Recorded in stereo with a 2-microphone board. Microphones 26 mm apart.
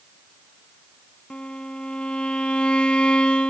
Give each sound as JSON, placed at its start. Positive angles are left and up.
{"t": 1.3, "sound": "a violin", "side_deg": 45, "distance_m": 0.9}